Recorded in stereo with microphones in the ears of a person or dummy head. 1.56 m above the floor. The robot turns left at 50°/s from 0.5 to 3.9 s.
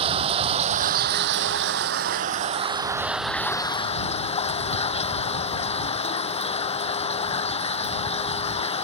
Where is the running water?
40° right; by 8.8 s 150° left.